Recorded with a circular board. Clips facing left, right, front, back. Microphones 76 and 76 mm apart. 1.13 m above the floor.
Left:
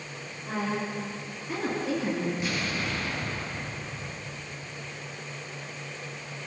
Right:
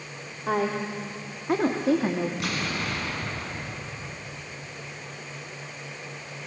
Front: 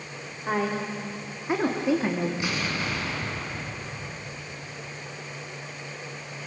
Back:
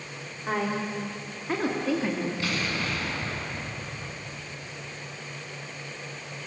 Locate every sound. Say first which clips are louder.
0.5 s a woman speaking: right 5 dB, front 1 dB; 85° right, 3.5 m; by 2.3 s 65° right, 2.5 m
2.4 s an explosion: right 1 dB, front 1 dB; 70° right, 7 m